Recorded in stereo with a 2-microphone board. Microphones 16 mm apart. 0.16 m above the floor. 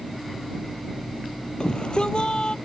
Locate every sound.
1.6 s a shout: 55° left (ahead or behind)